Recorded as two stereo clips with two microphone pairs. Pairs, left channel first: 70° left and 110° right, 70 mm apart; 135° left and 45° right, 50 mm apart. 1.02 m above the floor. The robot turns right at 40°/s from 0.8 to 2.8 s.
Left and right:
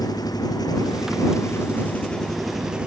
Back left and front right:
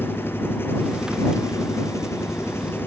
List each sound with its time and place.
0.0 s an engine running: 95° left; by 2.9 s 175° left